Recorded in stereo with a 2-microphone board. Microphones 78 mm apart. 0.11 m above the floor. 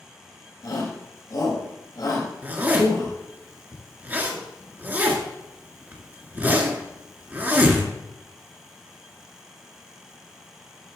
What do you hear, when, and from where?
0.6 s a shout: 55° left (ahead or behind), 4.5 m
2.4 s a zipper: 25° right (ahead or behind), 1.7 m